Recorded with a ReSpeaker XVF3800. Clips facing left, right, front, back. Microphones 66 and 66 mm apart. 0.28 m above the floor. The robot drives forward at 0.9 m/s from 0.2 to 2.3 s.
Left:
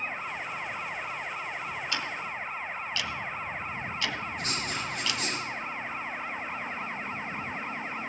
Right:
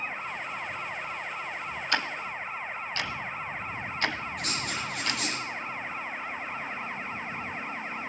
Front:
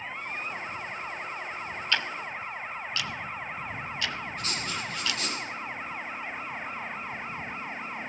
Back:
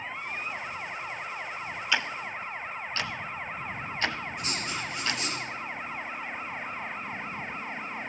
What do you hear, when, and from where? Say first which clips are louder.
1.9 s ticking: right 3 dB, back 1 dB; 100° right, 0.7 m; by 5.2 s 130° right, 0.8 m
4.4 s writing: even, even; 105° right, 7 m